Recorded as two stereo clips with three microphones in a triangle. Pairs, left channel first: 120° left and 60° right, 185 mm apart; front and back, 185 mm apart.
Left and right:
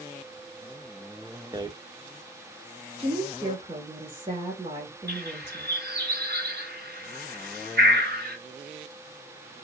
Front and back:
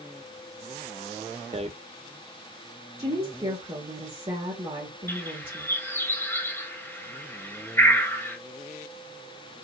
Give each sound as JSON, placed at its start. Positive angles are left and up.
{"t": 1.5, "sound": "a rattle", "azimuth_deg": -125, "distance_m": 0.8}
{"t": 3.0, "sound": "a woman speaking", "azimuth_deg": -125, "distance_m": 3.0}
{"t": 5.1, "sound": "a bird", "azimuth_deg": -75, "distance_m": 2.5}